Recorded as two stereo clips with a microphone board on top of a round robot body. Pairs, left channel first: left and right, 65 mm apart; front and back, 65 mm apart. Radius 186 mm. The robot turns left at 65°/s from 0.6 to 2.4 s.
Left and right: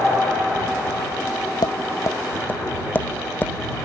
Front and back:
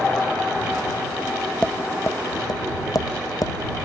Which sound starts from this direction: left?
Tapping, at 1.6 s.